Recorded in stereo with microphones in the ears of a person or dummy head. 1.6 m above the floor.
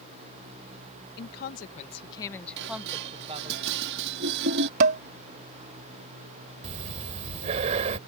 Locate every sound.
1.2 s a woman speaking: 55° left (ahead or behind); by 3.6 s 35° right (ahead or behind)
2.6 s dishes clattering: 65° right (ahead or behind)
4.8 s dishes clattering: 40° right (ahead or behind)
6.6 s breathing: 40° right (ahead or behind)